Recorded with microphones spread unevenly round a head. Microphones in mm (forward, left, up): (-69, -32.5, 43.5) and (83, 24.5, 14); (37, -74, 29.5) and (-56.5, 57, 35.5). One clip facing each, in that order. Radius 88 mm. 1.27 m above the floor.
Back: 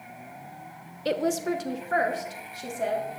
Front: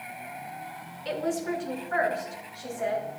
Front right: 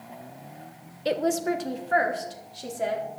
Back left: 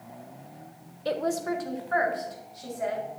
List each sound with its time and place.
1.1 s a woman speaking: 125° right, 1.1 m; by 3.0 s 110° right, 4 m